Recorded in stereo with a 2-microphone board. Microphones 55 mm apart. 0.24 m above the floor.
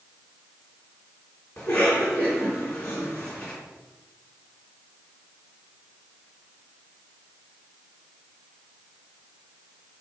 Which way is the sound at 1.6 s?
30° left (ahead or behind).